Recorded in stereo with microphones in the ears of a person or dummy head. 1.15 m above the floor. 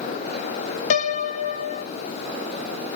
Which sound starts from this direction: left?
A piano, at 0.9 s.